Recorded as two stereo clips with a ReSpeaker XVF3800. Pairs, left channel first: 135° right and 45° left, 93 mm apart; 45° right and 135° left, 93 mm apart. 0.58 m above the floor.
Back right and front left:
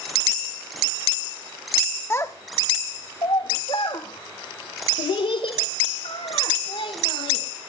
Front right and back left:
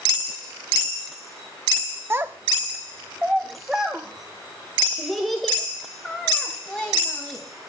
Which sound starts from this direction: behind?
A child speaking, at 2.1 s.